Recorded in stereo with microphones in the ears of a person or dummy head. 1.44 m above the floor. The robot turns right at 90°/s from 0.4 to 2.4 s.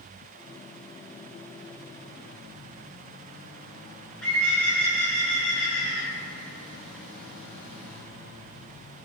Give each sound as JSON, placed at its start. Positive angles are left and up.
{"t": 4.2, "sound": "a bird", "side_deg": 5, "distance_m": 0.7}